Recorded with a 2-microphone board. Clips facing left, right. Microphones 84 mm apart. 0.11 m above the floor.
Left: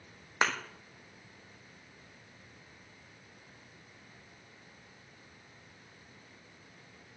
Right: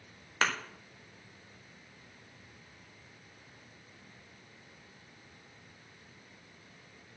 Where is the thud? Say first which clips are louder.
Left 1 dB; 15° left (ahead or behind), 1.2 m.